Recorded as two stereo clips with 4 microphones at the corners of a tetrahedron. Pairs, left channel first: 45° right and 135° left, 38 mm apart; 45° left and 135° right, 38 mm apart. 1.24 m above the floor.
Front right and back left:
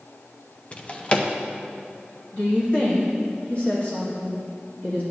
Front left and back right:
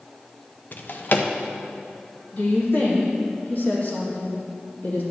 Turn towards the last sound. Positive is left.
turn(degrees=5)